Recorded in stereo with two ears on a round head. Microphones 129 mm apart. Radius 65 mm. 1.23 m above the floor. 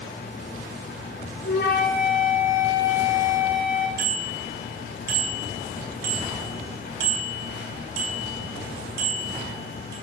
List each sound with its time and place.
1.4 s a flute: 70° left (ahead or behind), 5 m
4.0 s a bicycle bell: 75° right (ahead or behind), 7.5 m